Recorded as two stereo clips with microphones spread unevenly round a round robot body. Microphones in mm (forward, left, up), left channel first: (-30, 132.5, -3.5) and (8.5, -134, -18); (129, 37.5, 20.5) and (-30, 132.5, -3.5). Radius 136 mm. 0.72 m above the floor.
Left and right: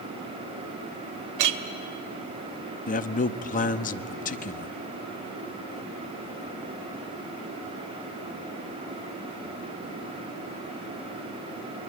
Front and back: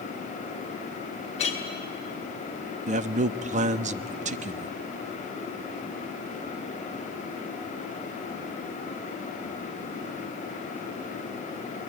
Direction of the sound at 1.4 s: 100° right.